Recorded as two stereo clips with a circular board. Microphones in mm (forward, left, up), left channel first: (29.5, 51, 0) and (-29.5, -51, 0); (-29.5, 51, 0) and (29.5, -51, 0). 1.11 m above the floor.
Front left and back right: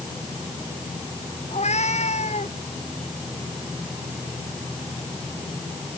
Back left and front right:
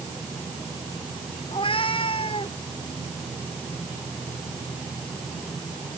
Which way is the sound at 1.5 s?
80° left.